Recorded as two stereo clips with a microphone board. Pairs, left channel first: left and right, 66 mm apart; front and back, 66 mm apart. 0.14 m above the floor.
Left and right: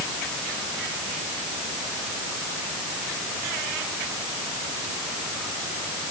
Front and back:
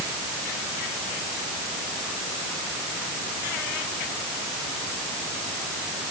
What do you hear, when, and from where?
Only background noise.